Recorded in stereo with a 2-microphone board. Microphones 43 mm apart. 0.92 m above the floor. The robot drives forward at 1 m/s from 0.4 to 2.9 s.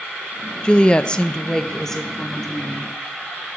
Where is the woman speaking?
20° left (ahead or behind), 0.6 m; by 2.9 s 5° left (ahead or behind), 2 m.